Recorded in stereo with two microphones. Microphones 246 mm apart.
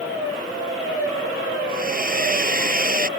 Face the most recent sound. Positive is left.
turn(degrees=-35)  # may be behind; listen again after turning